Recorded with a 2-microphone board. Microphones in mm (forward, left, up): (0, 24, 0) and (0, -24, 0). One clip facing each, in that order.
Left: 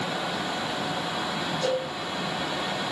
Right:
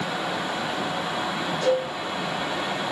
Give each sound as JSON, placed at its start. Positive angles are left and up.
{"t": 1.6, "sound": "a cowbell", "side_deg": -50, "distance_m": 1.7}